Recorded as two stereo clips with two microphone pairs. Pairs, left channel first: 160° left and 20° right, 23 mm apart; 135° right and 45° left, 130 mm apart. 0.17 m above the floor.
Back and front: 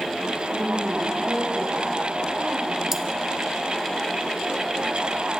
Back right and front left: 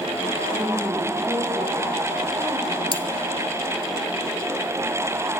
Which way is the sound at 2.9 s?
90° right.